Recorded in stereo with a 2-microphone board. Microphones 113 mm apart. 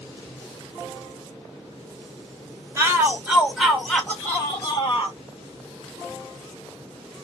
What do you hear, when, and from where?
2.8 s a shout: 25° right (ahead or behind), 1.2 m; by 5.2 s 35° left (ahead or behind), 1.4 m